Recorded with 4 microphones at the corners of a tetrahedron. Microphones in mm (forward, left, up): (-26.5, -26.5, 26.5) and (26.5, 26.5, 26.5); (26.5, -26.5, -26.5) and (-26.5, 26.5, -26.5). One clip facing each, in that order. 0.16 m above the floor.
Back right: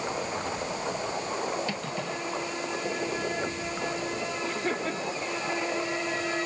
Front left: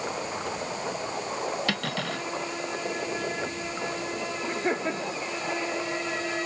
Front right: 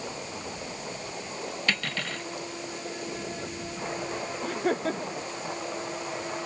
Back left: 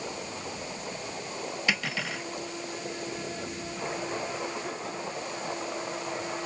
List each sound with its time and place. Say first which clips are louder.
1.7 s cutlery clinking: front left 2 dB, back left 1 dB; 55° left
4.4 s laughter: front left 4 dB, front right 7 dB; 20° right